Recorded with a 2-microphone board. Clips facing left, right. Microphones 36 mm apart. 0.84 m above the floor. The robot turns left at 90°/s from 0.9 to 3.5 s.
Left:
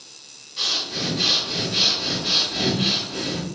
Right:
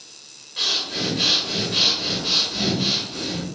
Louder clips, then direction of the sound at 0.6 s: Right 1 dB; 60° right.